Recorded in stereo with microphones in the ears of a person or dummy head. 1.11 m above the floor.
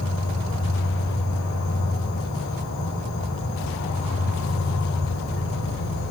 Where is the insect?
85° left, 4 m.